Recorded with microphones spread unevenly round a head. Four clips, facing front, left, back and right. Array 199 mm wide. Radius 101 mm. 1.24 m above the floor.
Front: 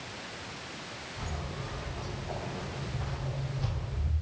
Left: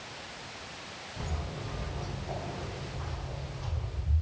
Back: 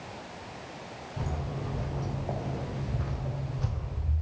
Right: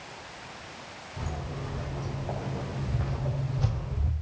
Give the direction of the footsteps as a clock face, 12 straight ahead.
6 o'clock.